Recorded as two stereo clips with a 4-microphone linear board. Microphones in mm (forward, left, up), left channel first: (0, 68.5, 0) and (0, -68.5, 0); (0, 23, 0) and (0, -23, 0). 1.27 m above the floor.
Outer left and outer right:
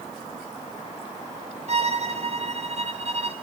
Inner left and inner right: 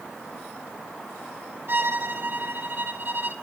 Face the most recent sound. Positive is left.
turn(degrees=-55)  # may be behind; listen again after turning